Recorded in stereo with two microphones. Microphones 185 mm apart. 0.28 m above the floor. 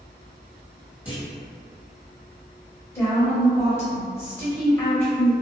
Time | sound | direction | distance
1.1 | a clunk | 10° right (ahead or behind) | 1.6 m
3.0 | a woman speaking | 15° left (ahead or behind) | 1.1 m